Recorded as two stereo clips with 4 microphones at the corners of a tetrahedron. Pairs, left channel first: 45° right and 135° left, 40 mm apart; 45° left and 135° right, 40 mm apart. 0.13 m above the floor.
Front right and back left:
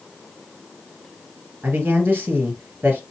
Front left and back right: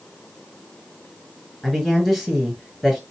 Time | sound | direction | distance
1.6 | a man speaking | 135° left | 1.8 m